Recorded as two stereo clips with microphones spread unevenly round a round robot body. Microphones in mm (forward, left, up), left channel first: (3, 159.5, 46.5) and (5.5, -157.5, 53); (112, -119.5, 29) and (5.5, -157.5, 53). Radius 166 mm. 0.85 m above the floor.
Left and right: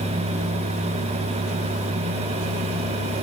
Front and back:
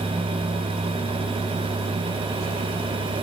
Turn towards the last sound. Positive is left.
No sound to turn to.